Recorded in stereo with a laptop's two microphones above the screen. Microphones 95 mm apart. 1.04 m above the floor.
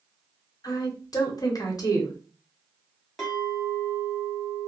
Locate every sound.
0.6 s a woman speaking: 45° left (ahead or behind), 1.0 m
3.2 s a clink: centre (ahead or behind), 1.2 m